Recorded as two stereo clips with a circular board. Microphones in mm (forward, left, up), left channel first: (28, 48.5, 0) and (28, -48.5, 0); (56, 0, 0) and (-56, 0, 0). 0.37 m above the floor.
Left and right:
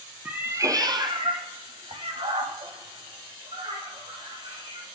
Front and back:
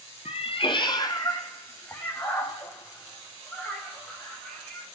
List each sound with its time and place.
0.2 s a cat meowing: 15° right, 0.9 m; by 4.9 s 85° right, 4.5 m